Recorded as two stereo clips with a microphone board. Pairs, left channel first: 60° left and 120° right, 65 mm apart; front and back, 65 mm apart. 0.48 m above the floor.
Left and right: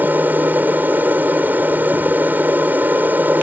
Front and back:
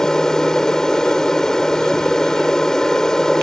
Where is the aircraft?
75° right.